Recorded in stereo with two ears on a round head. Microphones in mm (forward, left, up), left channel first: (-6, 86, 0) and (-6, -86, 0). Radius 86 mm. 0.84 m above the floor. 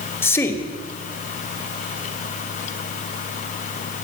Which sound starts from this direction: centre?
A man speaking, at 0.2 s.